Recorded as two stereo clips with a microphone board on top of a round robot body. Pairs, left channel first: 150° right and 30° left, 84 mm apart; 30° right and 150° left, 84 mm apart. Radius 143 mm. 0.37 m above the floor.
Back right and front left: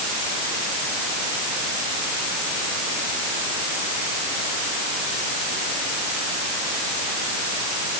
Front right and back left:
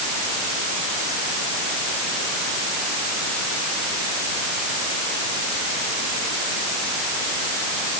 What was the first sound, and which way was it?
Only background noise.